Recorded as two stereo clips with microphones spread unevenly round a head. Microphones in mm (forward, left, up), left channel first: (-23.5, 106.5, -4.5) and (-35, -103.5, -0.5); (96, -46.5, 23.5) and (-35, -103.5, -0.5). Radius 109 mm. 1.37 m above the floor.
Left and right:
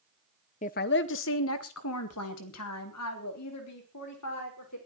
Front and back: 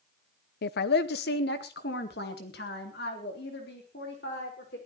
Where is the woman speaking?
25° left, 0.6 m; by 4.8 s 70° left, 5 m.